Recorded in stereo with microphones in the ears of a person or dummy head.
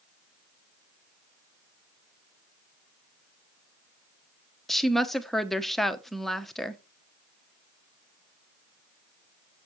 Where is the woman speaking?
5° left (ahead or behind), 0.9 m.